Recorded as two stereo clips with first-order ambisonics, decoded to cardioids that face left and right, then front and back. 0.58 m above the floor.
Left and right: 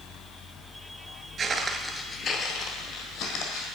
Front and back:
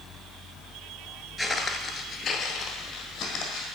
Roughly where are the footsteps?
Right.